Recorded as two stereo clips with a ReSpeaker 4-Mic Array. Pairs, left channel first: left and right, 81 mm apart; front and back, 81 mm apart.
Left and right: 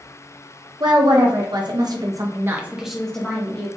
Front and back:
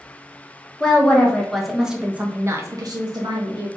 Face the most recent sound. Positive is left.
turn(degrees=155)